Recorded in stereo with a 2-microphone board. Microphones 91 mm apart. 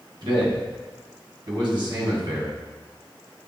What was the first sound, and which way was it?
A man speaking, 60° right (ahead or behind).